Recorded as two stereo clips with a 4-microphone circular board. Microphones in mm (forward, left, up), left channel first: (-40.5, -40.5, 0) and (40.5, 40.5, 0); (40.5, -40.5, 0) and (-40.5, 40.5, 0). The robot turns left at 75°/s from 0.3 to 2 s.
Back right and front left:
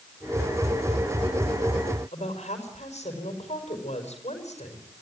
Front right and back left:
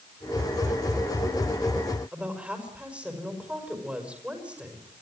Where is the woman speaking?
145° right, 5 m.